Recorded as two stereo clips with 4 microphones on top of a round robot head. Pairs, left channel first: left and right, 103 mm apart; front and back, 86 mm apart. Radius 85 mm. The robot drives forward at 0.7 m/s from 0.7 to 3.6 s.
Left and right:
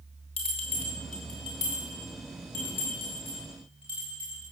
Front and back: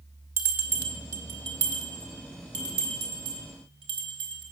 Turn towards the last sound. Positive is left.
turn(degrees=165)